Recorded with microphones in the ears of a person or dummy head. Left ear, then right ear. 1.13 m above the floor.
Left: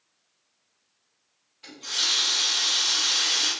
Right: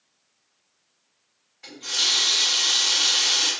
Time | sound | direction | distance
1.6 | a running tap | 25° right (ahead or behind) | 1.7 m